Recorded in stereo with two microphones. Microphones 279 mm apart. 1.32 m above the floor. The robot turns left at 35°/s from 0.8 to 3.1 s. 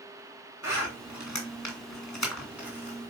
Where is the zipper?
60° left (ahead or behind), 2 m; by 3.1 s 40° left (ahead or behind), 2 m.